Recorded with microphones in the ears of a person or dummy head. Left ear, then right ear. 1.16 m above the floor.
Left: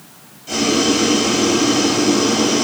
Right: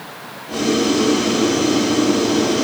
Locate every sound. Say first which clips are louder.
0.5 s boiling: left 2 dB; 70° left (ahead or behind), 8 m